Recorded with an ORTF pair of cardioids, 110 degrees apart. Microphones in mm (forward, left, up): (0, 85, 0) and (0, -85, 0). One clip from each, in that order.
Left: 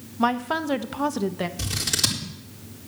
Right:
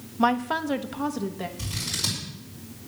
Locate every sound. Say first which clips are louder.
0.2 s a woman speaking: even; 5° right, 0.8 m; by 1.5 s 35° left, 1.1 m
1.6 s scissors: left 5 dB; 65° left, 4 m